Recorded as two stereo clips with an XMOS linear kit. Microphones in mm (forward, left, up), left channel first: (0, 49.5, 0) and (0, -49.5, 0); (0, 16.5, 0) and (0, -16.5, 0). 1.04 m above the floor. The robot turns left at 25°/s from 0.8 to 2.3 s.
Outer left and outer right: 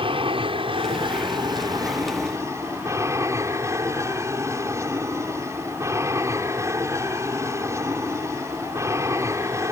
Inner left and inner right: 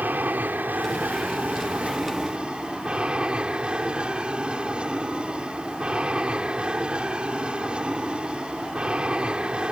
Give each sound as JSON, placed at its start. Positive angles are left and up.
{"t": 0.0, "sound": "an aircraft", "azimuth_deg": -110}